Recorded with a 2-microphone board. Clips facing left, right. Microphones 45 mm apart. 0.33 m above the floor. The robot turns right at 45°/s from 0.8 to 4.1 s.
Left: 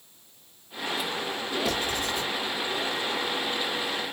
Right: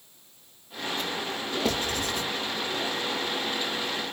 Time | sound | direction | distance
1.6 | writing | 35° right (ahead or behind) | 1.2 m